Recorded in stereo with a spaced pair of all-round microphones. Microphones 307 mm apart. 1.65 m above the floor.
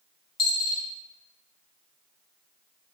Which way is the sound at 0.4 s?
20° left (ahead or behind).